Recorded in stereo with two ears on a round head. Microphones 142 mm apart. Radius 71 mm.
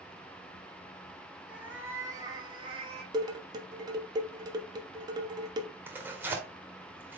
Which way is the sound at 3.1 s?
25° right (ahead or behind).